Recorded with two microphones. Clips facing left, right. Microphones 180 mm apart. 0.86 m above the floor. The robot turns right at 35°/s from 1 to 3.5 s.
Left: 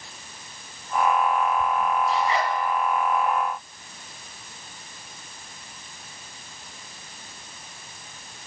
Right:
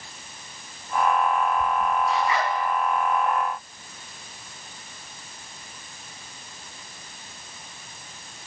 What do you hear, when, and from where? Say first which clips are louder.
2.1 s a zipper: even; 35° left (ahead or behind), 2 m; by 2.5 s 20° left (ahead or behind), 2 m